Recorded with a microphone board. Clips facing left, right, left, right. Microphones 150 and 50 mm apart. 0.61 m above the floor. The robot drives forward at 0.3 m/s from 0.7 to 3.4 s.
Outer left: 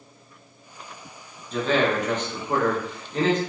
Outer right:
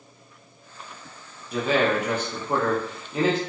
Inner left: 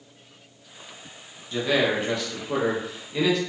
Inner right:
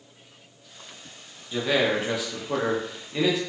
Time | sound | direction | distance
1.5 | a man speaking | 10° right (ahead or behind) | 0.7 m